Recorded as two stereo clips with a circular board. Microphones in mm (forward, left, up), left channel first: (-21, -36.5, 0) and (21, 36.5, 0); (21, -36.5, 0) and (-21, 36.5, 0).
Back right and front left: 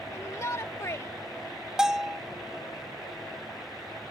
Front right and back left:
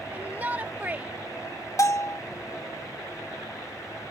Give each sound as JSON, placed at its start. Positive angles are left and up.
{"t": 0.1, "sound": "a shout", "azimuth_deg": -170}
{"t": 1.8, "sound": "a bell", "azimuth_deg": -20}